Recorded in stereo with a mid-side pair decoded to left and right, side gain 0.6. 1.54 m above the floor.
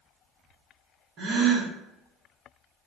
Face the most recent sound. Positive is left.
turn(degrees=-50)